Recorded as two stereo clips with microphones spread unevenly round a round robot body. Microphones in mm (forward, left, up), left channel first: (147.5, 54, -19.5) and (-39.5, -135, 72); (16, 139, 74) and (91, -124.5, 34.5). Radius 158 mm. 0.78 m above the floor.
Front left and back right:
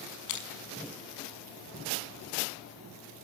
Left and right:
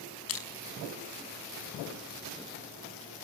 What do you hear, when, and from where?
0.3 s crushing: 70° left, 5 m